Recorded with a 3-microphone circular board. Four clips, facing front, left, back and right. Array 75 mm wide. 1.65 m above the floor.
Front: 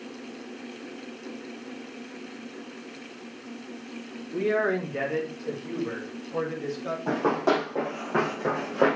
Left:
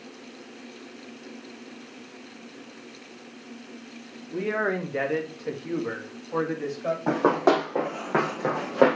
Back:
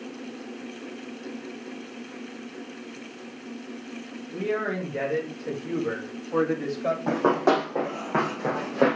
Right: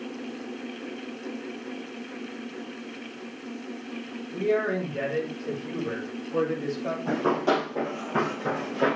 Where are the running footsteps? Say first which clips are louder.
Left 3 dB, back 2 dB; 110° left, 4.5 m; by 9.0 s 95° left, 3 m.